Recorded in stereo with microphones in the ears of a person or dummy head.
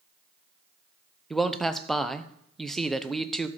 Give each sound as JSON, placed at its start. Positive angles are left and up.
{"t": 1.3, "sound": "a man speaking", "side_deg": 0, "distance_m": 0.7}